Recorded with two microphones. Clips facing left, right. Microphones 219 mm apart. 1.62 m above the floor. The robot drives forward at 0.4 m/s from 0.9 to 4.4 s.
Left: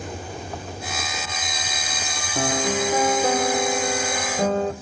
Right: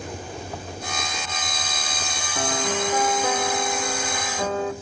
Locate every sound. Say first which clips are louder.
2.4 s a piano: left 3 dB; 25° left (ahead or behind), 0.9 m; by 4.7 s 35° left (ahead or behind), 0.6 m